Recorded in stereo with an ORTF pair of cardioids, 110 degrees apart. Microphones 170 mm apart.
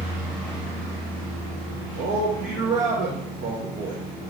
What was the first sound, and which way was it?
A man speaking, 60° right.